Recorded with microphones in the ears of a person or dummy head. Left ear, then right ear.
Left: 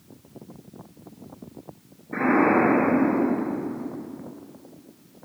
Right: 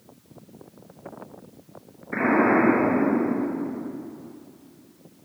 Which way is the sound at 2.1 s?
70° right (ahead or behind).